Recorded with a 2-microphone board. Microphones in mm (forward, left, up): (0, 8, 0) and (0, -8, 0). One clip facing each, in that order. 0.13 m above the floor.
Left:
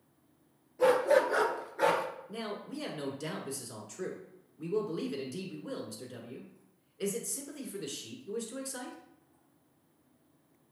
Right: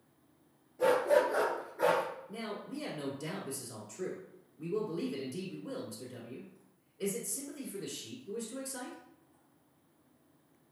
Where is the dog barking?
15° left (ahead or behind), 1.2 m; by 2.0 s 25° left (ahead or behind), 1.1 m.